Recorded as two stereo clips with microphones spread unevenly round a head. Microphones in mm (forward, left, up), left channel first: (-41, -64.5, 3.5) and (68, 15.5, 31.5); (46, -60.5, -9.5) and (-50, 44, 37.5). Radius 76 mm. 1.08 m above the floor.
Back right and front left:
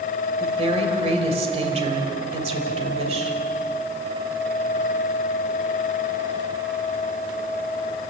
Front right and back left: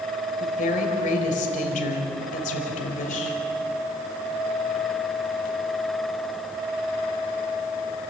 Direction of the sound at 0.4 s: 5° right.